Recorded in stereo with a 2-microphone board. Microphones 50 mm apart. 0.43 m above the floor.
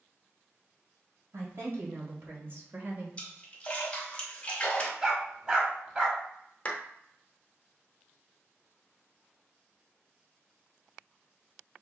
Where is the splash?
20° left (ahead or behind), 1.1 m.